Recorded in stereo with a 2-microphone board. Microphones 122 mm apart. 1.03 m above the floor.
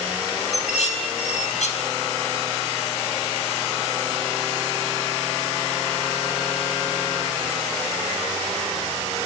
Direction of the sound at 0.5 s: 70° left (ahead or behind).